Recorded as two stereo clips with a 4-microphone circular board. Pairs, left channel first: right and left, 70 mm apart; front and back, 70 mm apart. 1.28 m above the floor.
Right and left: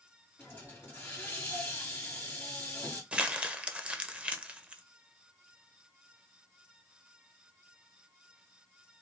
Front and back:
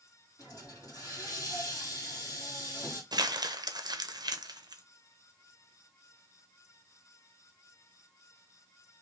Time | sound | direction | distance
0.4 | a hiss | 25° right | 1.9 m
3.1 | crumpling | 165° left | 0.5 m